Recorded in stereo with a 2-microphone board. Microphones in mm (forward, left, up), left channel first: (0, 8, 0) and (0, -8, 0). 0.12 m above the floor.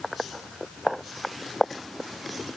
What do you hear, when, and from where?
Only background noise.